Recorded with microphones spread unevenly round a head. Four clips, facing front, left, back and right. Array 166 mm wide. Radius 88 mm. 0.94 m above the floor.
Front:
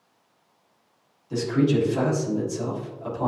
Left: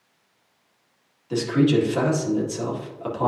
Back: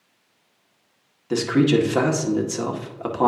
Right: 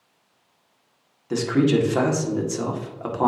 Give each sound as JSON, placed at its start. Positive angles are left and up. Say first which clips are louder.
{"t": 1.3, "sound": "a man speaking", "louder": "even, back 4 dB", "azimuth_deg": -170, "distance_m": 2.0}